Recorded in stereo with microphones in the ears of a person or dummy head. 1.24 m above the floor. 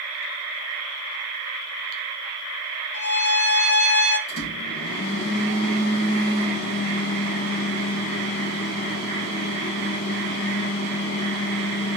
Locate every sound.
2.9 s a violin: 65° left (ahead or behind), 2.5 m
4.3 s a microwave: 75° left (ahead or behind), 2.5 m